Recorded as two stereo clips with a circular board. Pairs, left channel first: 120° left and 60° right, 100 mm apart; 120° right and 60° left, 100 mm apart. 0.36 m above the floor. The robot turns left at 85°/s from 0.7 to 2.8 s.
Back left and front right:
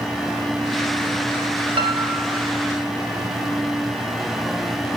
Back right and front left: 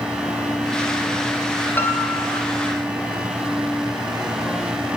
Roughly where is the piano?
Ahead right.